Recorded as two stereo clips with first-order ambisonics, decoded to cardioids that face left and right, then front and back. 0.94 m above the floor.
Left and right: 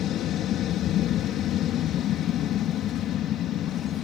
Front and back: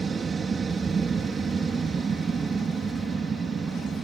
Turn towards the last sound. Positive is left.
turn(degrees=115)